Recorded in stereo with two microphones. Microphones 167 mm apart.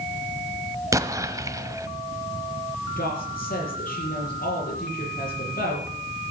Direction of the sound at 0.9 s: 20° right (ahead or behind).